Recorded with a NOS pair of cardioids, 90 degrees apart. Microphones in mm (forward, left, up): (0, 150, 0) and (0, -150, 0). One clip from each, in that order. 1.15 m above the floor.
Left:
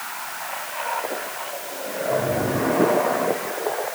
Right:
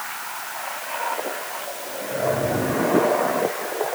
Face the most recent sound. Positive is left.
No sound to turn to.